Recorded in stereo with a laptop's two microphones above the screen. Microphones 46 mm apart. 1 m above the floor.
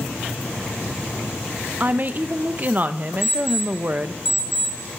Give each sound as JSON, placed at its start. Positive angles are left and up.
{"t": 1.8, "sound": "a woman speaking", "side_deg": -40, "distance_m": 0.7}
{"t": 3.2, "sound": "an alarm clock", "side_deg": 5, "distance_m": 4.5}